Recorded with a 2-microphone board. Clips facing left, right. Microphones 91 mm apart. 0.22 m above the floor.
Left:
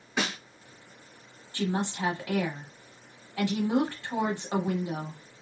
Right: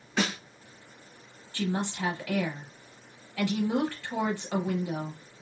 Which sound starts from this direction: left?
A woman speaking, at 1.5 s.